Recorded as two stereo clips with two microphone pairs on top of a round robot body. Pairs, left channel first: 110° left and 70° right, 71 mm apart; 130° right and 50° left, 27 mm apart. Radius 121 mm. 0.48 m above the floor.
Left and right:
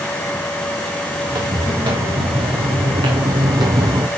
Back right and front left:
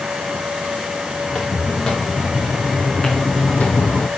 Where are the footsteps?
60° right, 3.5 m; by 4.1 s 115° right, 1.4 m.